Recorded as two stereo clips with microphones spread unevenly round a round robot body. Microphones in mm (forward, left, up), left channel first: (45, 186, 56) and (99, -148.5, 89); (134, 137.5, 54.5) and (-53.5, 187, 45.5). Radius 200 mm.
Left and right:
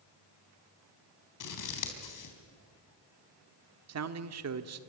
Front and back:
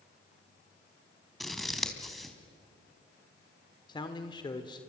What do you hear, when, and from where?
1.4 s scissors: 75° left, 4 m
3.9 s a man speaking: 75° right, 1.4 m